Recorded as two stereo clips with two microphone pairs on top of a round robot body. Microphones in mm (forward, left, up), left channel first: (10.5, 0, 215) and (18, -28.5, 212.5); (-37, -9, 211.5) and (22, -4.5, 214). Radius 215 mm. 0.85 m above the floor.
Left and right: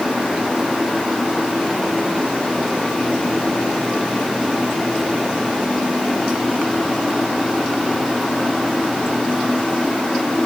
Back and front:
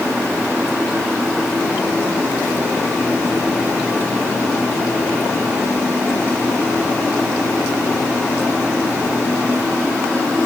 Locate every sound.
Only background noise.